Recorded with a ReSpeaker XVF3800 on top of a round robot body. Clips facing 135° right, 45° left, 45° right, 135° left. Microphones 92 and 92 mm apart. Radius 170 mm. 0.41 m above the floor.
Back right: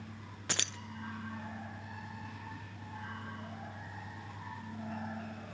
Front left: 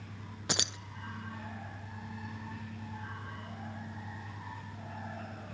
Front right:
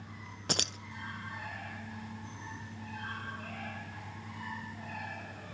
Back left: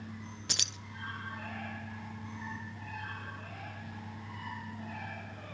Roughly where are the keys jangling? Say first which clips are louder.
Front left 3 dB, front right 12 dB; ahead.